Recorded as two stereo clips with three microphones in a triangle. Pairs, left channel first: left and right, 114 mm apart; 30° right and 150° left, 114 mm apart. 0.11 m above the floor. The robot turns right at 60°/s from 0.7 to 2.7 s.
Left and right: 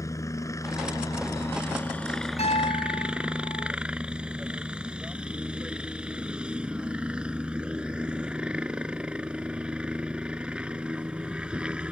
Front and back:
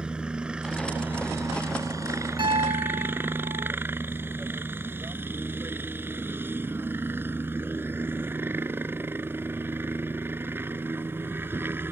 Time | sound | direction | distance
0.0 | a helicopter | 75° left | ?
2.4 | a piano | 110° left | ?